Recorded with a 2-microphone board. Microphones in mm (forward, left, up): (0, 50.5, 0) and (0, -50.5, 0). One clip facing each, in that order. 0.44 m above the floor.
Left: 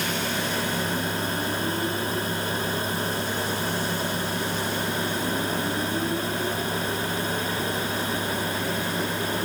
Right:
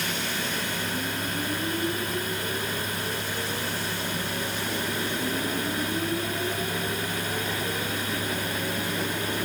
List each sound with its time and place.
Only background noise.